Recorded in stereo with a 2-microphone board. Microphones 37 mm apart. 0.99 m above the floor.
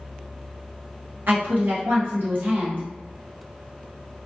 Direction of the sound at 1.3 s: 65° right (ahead or behind).